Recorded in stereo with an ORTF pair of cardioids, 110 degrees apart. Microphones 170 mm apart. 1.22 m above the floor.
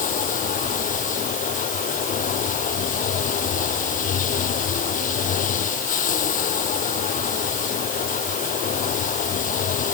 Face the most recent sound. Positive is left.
turn(degrees=50)